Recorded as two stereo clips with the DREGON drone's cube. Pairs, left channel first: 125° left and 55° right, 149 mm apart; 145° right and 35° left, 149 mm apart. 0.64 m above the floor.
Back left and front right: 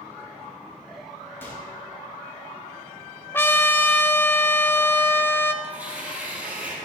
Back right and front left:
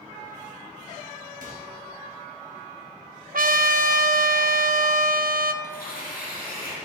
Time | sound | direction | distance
1.4 | a microwave | 50° left | 3.5 m
3.3 | a trumpet | 50° left | 0.6 m
5.6 | tearing paper | 135° right | 5 m